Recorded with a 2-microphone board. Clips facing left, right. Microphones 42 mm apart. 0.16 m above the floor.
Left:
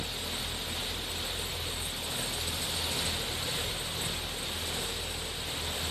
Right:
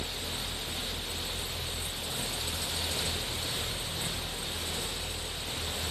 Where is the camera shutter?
I don't hear a camera shutter.